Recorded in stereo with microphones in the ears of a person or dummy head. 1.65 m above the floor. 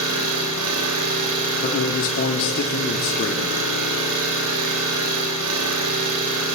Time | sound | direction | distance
0.0 | an engine running | 80° right | 7 m
1.6 | a man speaking | 55° left (ahead or behind) | 3.5 m